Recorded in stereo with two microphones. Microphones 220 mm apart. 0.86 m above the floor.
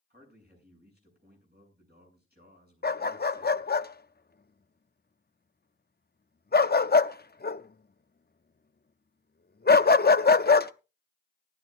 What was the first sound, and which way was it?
A man speaking, 45° right (ahead or behind).